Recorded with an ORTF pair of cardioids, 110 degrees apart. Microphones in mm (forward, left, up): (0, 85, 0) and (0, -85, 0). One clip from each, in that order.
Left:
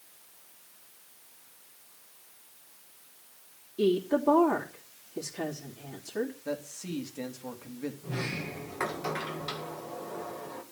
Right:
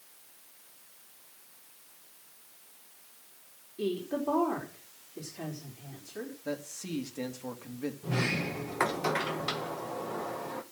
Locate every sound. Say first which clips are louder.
3.8 s a woman speaking: left 7 dB; 45° left, 3 m
6.5 s a man speaking: left 1 dB; 10° right, 2.5 m
8.0 s a sliding door: right 6 dB; 30° right, 1.8 m